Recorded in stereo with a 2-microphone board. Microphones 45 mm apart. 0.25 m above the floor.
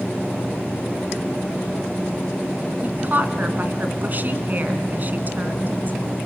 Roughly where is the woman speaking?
Right.